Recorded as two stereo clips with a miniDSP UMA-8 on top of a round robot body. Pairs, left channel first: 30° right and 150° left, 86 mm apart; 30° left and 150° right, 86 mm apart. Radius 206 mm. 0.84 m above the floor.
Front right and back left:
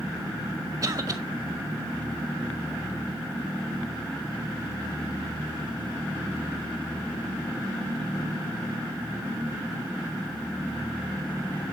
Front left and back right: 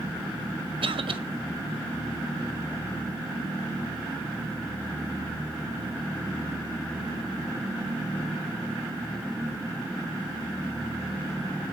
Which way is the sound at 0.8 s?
165° right.